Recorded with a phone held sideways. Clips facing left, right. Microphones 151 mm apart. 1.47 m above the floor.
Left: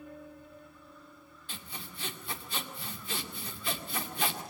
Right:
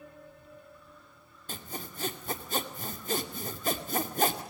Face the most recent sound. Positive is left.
turn(degrees=-45)  # may be behind; listen again after turning